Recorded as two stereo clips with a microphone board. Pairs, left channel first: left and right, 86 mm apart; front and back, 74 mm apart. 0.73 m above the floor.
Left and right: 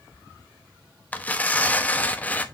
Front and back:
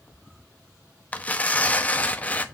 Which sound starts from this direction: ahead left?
Tearing paper, at 1.1 s.